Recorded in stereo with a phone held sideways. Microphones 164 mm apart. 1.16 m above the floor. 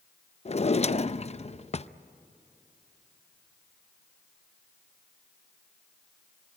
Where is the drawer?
40° left (ahead or behind), 0.5 m.